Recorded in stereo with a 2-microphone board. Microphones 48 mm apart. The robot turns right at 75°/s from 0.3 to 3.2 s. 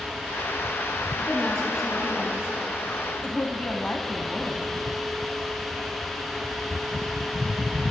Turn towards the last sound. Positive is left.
turn(degrees=20)  # may be behind; listen again after turning